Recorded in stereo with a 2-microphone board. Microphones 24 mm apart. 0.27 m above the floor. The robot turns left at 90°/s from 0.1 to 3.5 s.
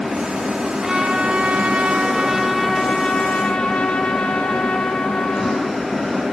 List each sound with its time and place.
0.8 s a trumpet: 25° right, 1.9 m; by 5.8 s 95° left, 1.9 m